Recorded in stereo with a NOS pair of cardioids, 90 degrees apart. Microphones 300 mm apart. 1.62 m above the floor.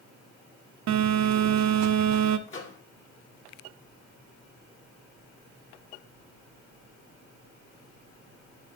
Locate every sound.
0.9 s a phone buzzing: 65° right, 0.9 m
2.5 s a microwave: 40° left, 2.5 m